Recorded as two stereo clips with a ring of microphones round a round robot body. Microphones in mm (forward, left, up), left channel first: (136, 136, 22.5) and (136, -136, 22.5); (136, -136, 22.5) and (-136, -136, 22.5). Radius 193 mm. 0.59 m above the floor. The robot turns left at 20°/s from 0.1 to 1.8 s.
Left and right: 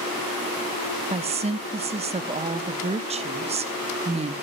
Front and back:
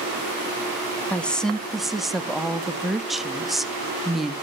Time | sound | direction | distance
1.1 | a woman speaking | 75° right | 0.6 m